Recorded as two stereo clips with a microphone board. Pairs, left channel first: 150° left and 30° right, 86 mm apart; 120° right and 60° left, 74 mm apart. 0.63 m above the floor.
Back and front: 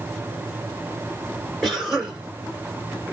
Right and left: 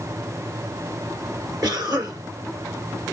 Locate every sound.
1.6 s a cough: 60° left, 2.5 m